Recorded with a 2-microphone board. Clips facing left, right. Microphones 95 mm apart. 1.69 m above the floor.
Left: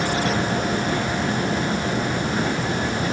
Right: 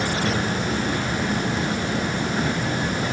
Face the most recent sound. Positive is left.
No sound to turn to.